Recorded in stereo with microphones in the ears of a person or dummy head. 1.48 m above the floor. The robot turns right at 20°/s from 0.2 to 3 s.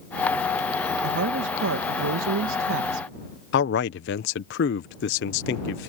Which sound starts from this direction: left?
A man speaking, at 3.5 s.